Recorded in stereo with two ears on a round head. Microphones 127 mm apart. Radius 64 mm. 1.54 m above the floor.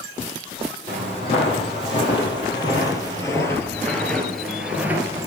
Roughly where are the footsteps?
Left.